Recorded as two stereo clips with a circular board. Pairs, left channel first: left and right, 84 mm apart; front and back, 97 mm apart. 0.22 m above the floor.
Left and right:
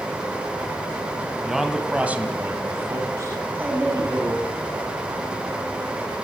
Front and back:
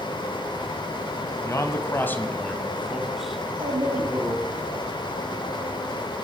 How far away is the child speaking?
About 6.5 m.